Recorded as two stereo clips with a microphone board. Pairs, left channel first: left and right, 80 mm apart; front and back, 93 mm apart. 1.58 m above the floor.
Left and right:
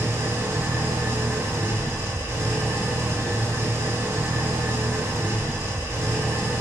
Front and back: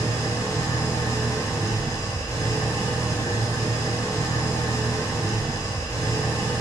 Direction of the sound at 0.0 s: 40° right.